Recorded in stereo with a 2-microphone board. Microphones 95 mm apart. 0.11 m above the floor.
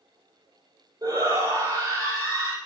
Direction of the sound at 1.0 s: 35° right (ahead or behind).